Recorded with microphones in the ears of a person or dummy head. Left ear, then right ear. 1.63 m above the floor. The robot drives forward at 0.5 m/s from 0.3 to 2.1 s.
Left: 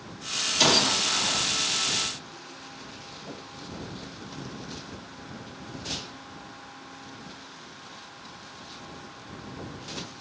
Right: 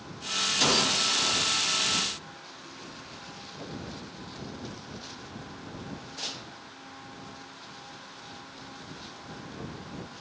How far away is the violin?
No violin in this recording.